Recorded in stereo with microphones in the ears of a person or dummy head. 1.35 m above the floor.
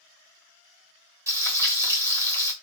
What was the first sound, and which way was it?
Frying, 15° right (ahead or behind).